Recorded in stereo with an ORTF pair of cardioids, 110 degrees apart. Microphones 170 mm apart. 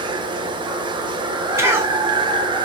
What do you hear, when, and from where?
0.0 s running water: 30° right, 0.9 m
1.6 s a cough: 15° right, 1.9 m